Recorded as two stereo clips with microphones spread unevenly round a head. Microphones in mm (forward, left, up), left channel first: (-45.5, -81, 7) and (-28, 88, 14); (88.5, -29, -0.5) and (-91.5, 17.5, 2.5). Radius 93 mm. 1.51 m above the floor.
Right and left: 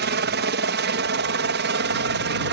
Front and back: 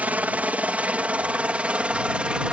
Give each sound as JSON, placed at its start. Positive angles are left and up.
{"t": 0.0, "sound": "a helicopter", "azimuth_deg": 85}